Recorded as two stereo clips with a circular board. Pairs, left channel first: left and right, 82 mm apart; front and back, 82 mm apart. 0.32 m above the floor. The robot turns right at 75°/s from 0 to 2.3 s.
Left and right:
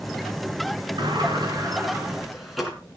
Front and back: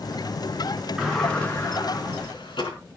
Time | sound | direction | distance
1.0 | a sliding door | 100° right | 4 m